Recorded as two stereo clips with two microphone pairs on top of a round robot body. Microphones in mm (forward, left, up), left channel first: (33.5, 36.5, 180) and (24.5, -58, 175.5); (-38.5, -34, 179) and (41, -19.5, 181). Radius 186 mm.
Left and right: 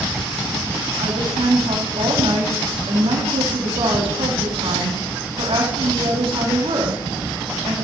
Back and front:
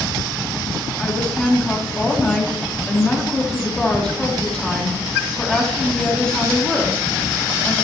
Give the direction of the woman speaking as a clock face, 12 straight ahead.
3 o'clock.